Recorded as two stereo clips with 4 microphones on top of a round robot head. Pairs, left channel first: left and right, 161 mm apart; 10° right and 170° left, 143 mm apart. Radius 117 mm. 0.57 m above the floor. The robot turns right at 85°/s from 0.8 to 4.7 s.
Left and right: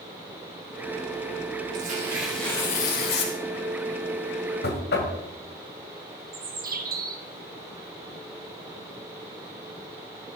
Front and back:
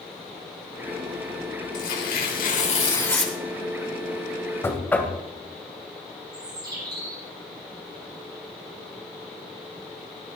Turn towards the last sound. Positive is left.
turn(degrees=-120)